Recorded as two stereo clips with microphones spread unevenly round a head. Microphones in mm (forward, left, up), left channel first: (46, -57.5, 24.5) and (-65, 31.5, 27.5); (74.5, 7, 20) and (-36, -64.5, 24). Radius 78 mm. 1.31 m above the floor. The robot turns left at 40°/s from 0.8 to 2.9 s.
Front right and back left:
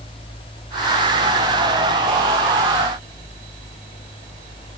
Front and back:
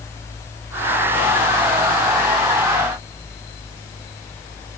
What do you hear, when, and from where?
Only background noise.